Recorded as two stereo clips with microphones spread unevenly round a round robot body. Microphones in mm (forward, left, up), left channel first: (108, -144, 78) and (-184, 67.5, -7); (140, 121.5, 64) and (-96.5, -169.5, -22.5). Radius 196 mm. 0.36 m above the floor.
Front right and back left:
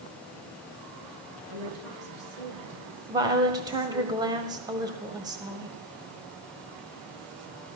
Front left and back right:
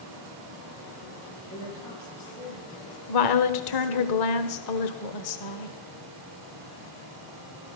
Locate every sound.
1.5 s a woman speaking: 125° left, 5.5 m
3.1 s a woman speaking: 80° left, 1.4 m